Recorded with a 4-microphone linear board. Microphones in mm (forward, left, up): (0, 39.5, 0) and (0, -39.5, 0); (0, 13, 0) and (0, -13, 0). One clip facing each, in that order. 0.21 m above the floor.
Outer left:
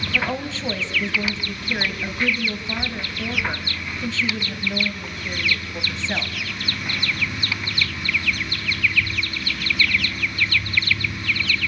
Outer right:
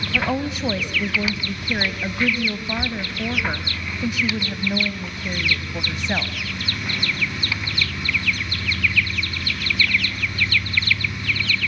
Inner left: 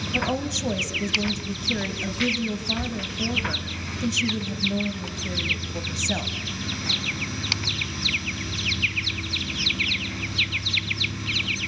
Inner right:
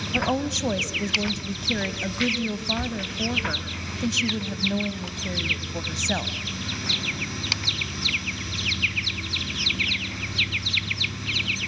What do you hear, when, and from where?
0.1 s a woman speaking: 15° right (ahead or behind), 1.1 m